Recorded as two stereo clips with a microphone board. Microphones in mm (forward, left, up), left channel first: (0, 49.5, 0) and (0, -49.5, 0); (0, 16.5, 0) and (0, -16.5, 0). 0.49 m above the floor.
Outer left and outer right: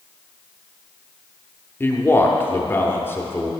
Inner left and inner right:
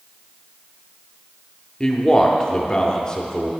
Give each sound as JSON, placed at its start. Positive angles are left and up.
{"t": 1.8, "sound": "a man speaking", "side_deg": 20, "distance_m": 0.7}